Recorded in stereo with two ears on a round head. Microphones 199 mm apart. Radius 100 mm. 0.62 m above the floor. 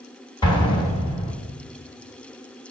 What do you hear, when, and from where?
0.4 s an explosion: 20° left (ahead or behind), 1.3 m